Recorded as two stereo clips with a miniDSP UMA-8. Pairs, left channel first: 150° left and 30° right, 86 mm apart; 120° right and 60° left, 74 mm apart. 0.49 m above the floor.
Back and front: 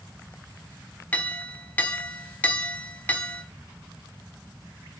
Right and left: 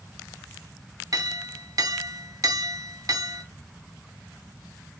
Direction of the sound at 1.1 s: 80° left.